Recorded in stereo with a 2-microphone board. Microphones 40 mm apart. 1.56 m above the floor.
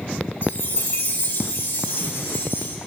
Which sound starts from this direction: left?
A chime, at 0.4 s.